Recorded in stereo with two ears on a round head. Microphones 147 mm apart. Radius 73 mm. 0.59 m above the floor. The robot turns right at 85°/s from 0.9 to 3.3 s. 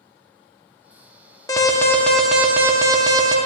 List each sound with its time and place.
1.5 s an alarm: 20° left (ahead or behind), 0.8 m; by 3.4 s 25° right (ahead or behind), 0.8 m